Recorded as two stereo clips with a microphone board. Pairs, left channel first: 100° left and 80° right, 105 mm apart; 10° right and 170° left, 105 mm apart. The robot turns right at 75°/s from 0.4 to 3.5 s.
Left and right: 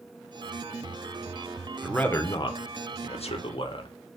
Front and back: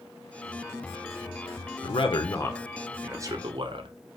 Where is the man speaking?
5° left, 0.6 m; by 3.9 s 135° left, 0.6 m.